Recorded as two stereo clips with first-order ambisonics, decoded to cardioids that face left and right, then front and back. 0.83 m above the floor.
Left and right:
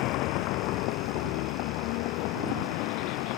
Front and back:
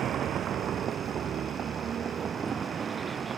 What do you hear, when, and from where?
0.0 s a vehicle: 120° left; by 3.4 s 110° left